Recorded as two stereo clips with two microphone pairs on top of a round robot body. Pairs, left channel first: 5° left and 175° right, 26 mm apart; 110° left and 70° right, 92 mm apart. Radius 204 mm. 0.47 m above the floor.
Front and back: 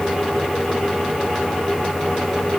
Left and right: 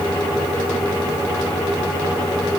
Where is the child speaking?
No child speaking in this recording.